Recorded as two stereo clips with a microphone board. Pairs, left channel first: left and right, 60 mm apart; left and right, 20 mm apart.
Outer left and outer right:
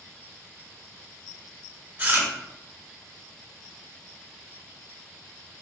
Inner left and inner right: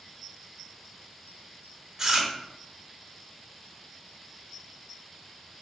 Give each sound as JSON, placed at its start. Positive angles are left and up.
{"t": 2.0, "sound": "chewing", "side_deg": -30, "distance_m": 1.2}